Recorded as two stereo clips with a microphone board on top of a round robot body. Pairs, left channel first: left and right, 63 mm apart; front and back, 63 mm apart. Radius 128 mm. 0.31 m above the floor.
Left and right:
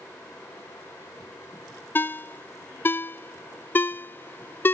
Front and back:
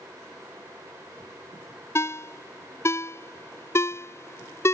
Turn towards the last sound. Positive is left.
turn(degrees=40)